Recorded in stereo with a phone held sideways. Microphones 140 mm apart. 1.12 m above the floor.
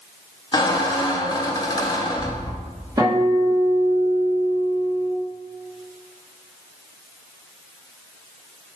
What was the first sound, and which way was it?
A squeak, 30° left (ahead or behind).